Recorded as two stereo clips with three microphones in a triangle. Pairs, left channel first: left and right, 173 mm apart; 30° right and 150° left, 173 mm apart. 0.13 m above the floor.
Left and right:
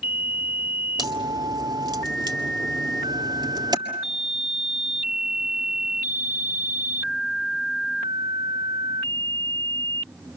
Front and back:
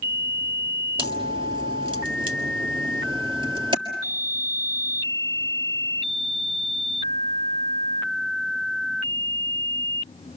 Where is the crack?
150° right, 1.6 m.